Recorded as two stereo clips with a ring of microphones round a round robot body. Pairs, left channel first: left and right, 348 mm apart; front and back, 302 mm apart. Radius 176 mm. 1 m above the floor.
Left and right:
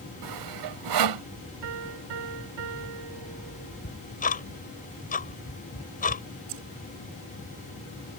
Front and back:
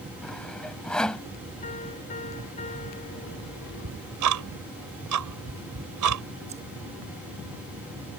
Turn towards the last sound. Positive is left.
turn(degrees=-105)